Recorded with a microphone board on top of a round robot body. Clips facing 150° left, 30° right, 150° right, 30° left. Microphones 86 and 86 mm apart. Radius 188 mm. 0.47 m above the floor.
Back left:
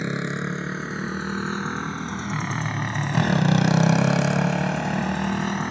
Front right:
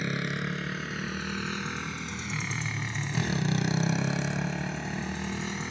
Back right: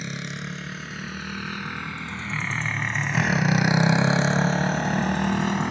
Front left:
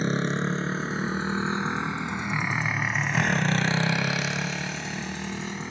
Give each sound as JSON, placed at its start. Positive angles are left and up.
{"t": 0.0, "sound": "a motorcycle", "azimuth_deg": 85}